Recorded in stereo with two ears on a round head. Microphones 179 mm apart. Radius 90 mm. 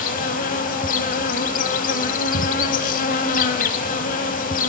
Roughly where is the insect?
Left.